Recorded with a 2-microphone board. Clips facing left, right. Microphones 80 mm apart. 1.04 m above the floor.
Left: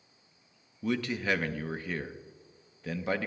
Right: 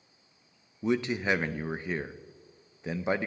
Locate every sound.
0.8 s a man speaking: 20° right (ahead or behind), 0.5 m